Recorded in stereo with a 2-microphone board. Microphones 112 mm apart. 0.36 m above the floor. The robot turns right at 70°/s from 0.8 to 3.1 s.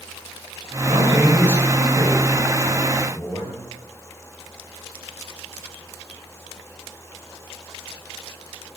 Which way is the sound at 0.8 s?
140° right.